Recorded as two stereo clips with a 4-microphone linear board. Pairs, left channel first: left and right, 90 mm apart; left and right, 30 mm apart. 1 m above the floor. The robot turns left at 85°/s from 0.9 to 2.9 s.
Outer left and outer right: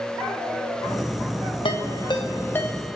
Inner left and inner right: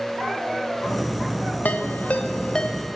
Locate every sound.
1.6 s a ringtone: 65° left (ahead or behind), 0.7 m; by 3.0 s 5° right (ahead or behind), 0.7 m